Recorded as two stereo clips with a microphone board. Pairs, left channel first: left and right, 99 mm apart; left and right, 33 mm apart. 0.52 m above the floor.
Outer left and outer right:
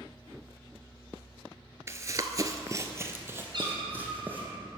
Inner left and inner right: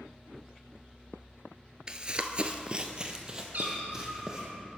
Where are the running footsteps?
30° right (ahead or behind), 0.6 m; by 4.5 s 15° right (ahead or behind), 1.8 m.